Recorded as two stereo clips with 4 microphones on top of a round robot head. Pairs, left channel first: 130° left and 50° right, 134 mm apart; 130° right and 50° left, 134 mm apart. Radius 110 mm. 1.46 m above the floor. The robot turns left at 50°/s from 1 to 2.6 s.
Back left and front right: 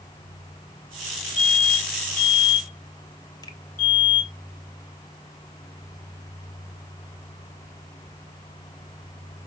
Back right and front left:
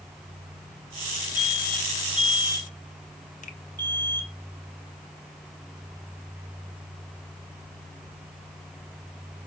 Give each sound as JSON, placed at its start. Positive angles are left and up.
{"t": 1.4, "sound": "an alarm", "azimuth_deg": 170, "distance_m": 4.5}
{"t": 3.4, "sound": "a finger snap", "azimuth_deg": -165, "distance_m": 1.5}